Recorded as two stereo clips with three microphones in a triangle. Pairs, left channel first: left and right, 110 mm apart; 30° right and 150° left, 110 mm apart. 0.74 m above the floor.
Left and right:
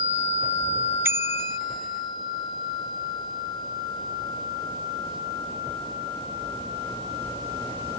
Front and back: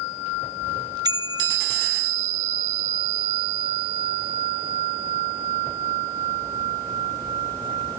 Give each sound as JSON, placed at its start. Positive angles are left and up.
{"t": 1.1, "sound": "a bicycle bell", "azimuth_deg": -160}